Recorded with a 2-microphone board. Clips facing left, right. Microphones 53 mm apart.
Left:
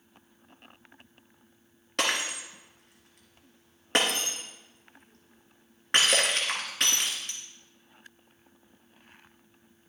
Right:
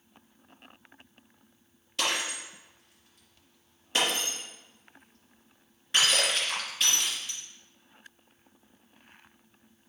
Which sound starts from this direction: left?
Breaking glass, at 2.0 s.